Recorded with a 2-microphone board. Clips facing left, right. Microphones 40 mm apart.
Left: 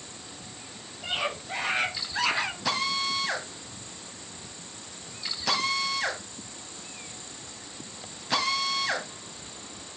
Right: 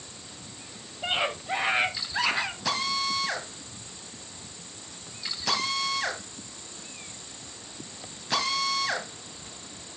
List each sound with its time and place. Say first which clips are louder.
1.0 s a scream: right 3 dB; 35° right (ahead or behind), 3 m; by 2.5 s 5° left (ahead or behind), 1.8 m
2.6 s a drill: even; 5° left (ahead or behind), 1.9 m